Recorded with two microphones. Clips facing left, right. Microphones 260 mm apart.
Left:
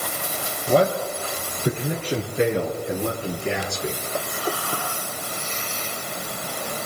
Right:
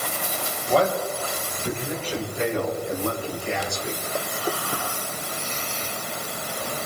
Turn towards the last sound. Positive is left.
turn(degrees=65)  # may be behind; listen again after turning